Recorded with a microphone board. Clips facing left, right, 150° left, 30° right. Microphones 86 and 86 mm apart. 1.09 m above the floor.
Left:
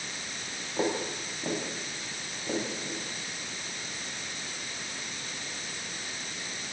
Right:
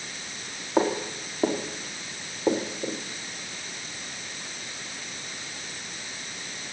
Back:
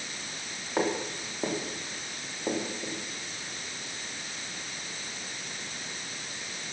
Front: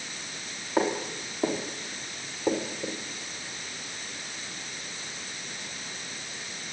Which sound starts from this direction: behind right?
Footsteps, at 0.8 s.